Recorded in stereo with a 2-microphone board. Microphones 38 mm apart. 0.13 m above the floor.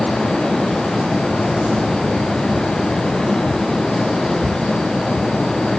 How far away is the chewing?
I don't hear chewing.